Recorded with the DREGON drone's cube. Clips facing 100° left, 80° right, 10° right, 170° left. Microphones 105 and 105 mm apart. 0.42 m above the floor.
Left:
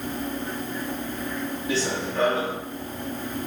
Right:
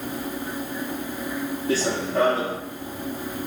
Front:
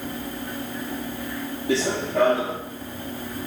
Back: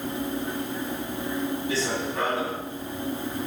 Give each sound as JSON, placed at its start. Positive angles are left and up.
{"t": 1.7, "sound": "running footsteps", "azimuth_deg": -30, "distance_m": 1.1}